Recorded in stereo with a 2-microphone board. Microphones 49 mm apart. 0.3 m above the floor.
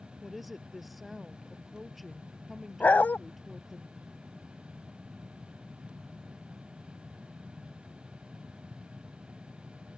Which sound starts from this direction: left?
A dog barking, at 2.8 s.